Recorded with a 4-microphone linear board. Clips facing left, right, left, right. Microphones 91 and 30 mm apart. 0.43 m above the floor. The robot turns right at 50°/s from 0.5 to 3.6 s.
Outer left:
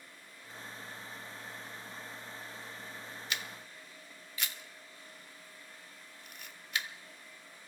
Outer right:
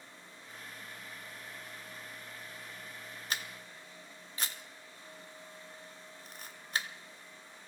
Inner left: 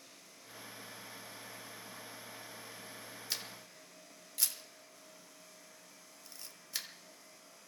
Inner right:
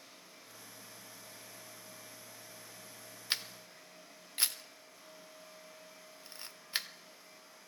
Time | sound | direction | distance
3.3 | a camera shutter | 40° right (ahead or behind) | 0.8 m